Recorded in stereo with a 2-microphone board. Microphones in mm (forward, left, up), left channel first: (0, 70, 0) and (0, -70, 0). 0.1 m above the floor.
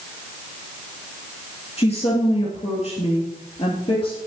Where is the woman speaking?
45° left (ahead or behind), 2.5 m.